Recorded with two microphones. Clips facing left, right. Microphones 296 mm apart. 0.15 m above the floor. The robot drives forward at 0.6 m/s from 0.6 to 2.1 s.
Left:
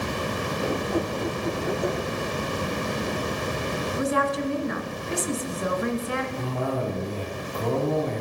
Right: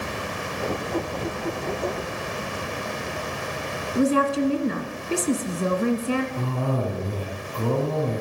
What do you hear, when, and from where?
4.0 s a woman speaking: 35° right (ahead or behind), 1.5 m
6.4 s a cough: 35° right (ahead or behind), 6.5 m